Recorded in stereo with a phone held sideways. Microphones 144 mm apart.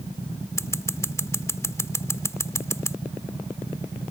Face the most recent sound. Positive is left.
turn(degrees=20)  # may be behind; listen again after turning